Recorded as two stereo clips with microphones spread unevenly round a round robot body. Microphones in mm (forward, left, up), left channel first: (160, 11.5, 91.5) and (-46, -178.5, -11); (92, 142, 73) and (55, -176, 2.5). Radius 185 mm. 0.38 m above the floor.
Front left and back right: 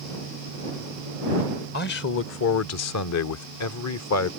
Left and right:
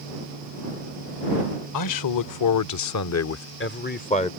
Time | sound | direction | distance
1.7 | a man speaking | 110° left | ?